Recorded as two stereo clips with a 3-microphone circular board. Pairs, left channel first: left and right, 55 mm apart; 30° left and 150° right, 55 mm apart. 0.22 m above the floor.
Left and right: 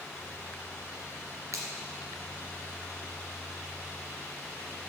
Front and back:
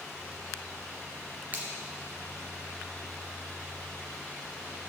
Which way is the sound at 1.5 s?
90° right.